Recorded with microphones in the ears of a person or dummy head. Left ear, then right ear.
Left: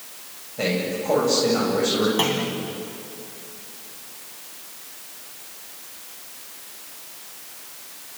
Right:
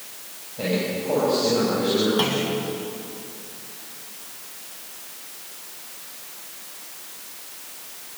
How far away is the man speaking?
About 7 m.